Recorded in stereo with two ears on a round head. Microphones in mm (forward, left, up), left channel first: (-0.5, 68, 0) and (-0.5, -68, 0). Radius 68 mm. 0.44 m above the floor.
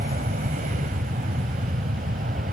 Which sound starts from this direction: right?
An aircraft, at 0.0 s.